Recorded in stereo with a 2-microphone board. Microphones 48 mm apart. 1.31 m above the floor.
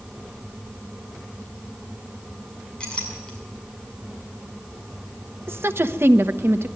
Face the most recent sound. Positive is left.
turn(degrees=-55)  # may be behind; listen again after turning